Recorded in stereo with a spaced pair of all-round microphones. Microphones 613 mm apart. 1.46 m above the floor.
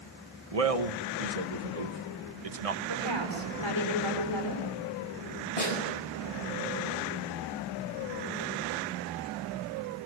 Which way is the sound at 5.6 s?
80° left.